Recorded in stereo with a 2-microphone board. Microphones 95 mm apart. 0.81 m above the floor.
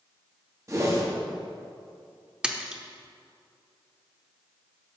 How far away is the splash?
About 0.6 m.